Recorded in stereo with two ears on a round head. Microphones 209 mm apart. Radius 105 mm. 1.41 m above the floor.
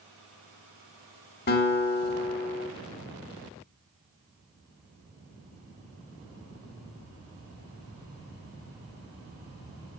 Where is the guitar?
45° left (ahead or behind), 1.4 m.